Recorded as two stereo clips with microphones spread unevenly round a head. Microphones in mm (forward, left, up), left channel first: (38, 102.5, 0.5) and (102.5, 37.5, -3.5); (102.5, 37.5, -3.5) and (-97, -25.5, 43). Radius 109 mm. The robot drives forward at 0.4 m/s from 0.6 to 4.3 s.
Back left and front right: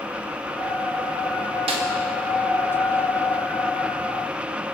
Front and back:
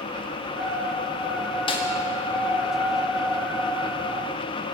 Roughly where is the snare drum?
Ahead right.